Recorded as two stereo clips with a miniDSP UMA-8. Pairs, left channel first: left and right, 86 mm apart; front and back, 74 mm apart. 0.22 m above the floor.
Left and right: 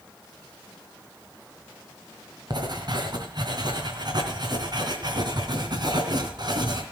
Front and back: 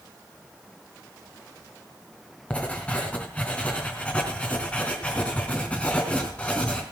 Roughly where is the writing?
Right.